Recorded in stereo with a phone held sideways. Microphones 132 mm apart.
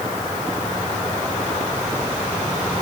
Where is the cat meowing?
No cat meowing in this recording.